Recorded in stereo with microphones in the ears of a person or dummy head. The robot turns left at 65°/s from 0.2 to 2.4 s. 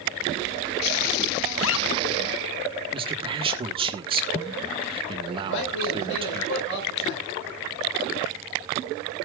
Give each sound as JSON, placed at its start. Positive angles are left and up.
{"t": 1.5, "sound": "a zipper", "side_deg": 65, "distance_m": 0.7}
{"t": 2.9, "sound": "a man speaking", "side_deg": -30, "distance_m": 1.3}
{"t": 5.4, "sound": "a man speaking", "side_deg": 70, "distance_m": 6.5}